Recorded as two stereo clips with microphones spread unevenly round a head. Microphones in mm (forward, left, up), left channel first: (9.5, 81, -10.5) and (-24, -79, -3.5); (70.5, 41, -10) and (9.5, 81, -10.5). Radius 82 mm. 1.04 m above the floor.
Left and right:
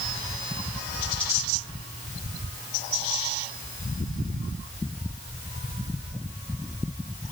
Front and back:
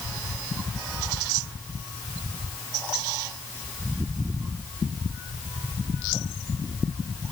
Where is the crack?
I don't hear a crack.